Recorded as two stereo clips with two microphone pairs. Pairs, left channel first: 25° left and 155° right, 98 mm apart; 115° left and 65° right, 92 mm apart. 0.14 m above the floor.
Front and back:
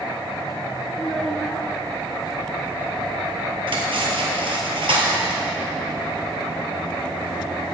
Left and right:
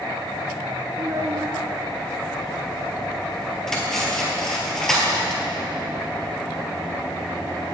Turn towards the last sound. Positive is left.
turn(degrees=-165)